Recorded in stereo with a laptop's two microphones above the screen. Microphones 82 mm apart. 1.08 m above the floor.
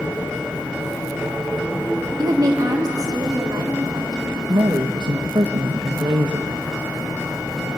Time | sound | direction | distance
2.2 | a woman speaking | 50° right (ahead or behind) | 1.5 m
4.5 | a woman speaking | 70° right (ahead or behind) | 0.8 m